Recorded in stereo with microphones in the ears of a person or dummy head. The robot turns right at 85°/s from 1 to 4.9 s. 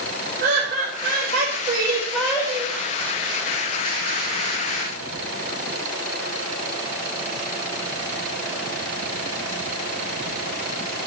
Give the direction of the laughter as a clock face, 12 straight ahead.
4 o'clock.